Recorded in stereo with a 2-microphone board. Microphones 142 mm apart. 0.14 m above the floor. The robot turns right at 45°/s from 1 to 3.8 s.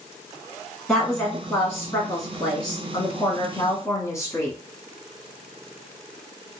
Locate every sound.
0.9 s a woman speaking: centre (ahead or behind), 1.3 m; by 4.6 s 20° left (ahead or behind), 1.3 m